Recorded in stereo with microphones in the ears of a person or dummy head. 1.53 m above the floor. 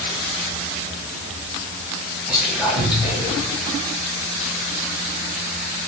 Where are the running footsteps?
I don't hear running footsteps.